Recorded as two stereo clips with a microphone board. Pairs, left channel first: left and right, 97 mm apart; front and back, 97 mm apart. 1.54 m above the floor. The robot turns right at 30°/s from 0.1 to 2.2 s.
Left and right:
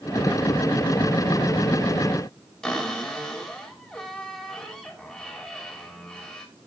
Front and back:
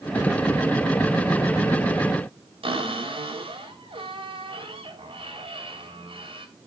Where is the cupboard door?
170° left, 3.5 m.